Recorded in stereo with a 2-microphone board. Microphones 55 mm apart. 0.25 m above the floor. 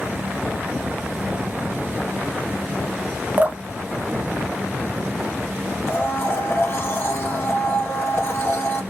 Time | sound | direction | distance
3.4 | dripping | 30° right (ahead or behind) | 0.6 m
5.9 | a blender | 45° left (ahead or behind) | 0.9 m